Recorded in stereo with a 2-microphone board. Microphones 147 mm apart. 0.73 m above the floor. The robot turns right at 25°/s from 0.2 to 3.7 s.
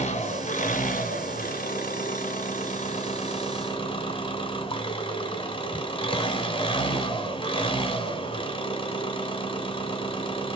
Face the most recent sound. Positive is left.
turn(degrees=140)